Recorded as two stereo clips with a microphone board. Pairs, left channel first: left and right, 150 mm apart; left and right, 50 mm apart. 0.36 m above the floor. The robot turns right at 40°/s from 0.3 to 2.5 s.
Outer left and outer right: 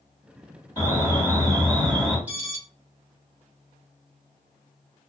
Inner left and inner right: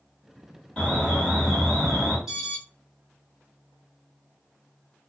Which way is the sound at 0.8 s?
25° left (ahead or behind).